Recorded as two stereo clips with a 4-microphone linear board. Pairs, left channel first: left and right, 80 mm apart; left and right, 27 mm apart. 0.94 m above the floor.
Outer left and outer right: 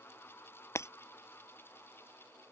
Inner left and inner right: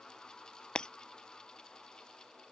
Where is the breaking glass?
35° left (ahead or behind).